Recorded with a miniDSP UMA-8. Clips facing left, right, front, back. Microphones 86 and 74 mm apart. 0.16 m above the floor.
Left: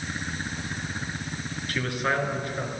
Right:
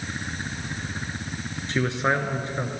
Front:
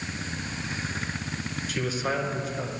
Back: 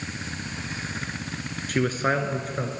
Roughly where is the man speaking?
Behind right.